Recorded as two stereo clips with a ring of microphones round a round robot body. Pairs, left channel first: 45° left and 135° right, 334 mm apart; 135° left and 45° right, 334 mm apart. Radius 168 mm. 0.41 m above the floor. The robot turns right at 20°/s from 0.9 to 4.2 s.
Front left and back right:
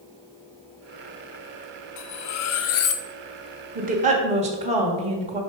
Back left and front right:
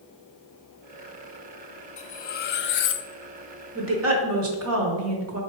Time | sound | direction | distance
2.0 | cutlery clinking | 70° left | 0.5 m
3.8 | a woman speaking | 80° right | 1.1 m